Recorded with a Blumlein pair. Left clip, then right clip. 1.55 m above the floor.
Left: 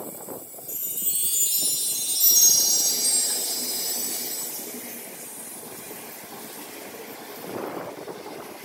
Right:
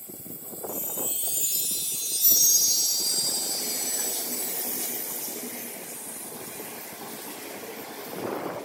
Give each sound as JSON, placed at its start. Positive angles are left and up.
{"t": 0.7, "sound": "a chime", "azimuth_deg": 25, "distance_m": 1.7}